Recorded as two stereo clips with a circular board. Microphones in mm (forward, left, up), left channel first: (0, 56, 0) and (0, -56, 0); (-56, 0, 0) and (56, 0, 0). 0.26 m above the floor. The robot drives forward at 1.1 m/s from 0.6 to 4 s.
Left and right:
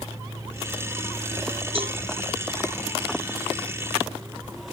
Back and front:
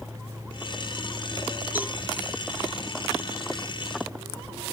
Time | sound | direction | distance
1.8 | a cowbell | 70° right | ?